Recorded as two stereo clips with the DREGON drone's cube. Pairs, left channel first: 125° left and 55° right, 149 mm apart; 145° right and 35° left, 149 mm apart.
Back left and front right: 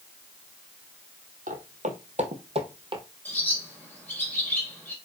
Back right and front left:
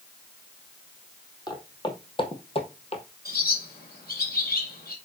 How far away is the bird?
About 3.5 m.